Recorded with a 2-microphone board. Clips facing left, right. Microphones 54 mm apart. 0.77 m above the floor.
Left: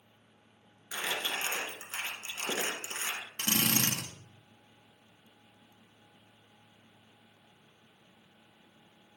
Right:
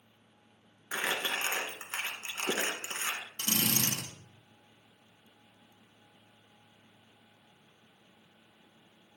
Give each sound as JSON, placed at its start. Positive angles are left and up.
{"t": 0.9, "sound": "crumpling", "side_deg": -40, "distance_m": 1.9}
{"t": 3.4, "sound": "a drill", "side_deg": 55, "distance_m": 1.4}